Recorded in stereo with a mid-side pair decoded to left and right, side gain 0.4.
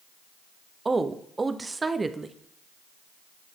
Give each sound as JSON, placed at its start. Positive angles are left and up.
{"t": 0.8, "sound": "a woman speaking", "azimuth_deg": -30, "distance_m": 0.6}